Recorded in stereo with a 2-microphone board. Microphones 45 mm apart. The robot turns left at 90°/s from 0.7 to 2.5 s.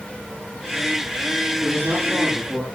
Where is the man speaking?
90° right, 8.5 m; by 2.6 s 170° right, 8.5 m.